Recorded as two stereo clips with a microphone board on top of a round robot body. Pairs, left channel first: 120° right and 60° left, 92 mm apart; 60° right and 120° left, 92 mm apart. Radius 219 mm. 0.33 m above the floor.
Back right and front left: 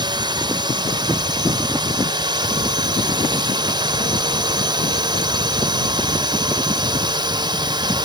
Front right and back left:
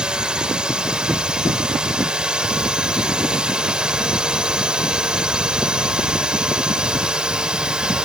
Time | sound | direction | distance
0.0 | a drone | 40° left | ?